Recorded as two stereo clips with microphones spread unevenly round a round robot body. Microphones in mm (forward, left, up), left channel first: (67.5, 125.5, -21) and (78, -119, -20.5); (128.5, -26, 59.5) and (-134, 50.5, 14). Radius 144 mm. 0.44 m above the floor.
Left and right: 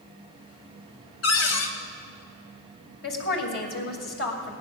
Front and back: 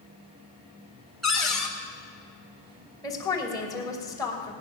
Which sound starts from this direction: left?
A cupboard door, at 1.2 s.